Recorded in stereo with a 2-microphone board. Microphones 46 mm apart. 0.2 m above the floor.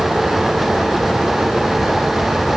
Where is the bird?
No bird in this recording.